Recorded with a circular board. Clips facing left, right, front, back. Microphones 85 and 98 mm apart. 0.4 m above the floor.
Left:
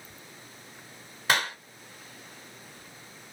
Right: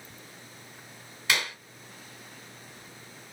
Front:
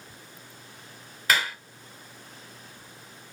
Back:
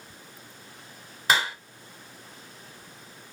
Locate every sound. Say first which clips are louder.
1.3 s a clap: left 4 dB, back 1 dB; 125° left, 1.5 m